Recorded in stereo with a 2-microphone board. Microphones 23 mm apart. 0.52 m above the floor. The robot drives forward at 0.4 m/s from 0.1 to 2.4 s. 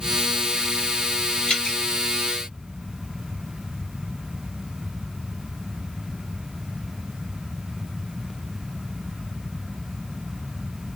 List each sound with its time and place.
1.5 s dripping: 40° left (ahead or behind), 1.8 m